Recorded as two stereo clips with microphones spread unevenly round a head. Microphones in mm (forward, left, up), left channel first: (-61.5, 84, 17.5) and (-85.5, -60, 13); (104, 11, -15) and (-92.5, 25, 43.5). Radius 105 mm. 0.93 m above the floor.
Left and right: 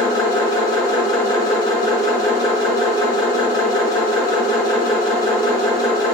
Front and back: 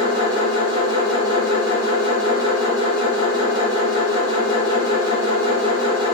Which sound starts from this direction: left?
A machine running, at 0.0 s.